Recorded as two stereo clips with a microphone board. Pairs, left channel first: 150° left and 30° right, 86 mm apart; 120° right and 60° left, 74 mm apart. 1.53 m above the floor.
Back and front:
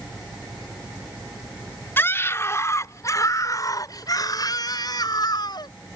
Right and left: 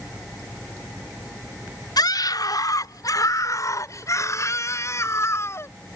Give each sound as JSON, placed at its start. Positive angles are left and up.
{"t": 2.0, "sound": "a scream", "azimuth_deg": -145}